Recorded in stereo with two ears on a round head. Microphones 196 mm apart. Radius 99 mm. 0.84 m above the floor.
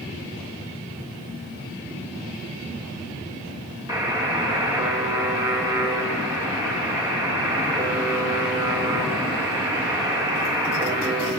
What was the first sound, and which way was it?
A buzzer, 15° right (ahead or behind).